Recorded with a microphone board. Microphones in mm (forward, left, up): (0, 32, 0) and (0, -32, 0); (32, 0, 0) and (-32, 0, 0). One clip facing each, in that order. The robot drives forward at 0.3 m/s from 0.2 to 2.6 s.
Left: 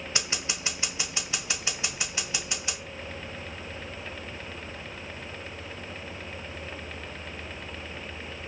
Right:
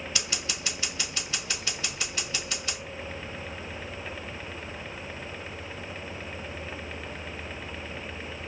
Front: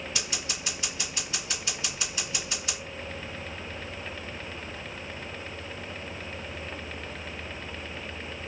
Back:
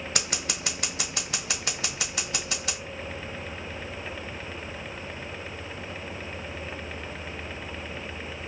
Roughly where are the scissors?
Behind left.